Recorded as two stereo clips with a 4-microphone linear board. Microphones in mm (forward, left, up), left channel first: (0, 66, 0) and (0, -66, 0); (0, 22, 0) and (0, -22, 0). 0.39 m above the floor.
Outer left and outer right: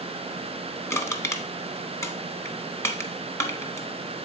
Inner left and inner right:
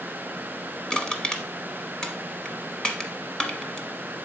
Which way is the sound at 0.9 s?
20° left (ahead or behind).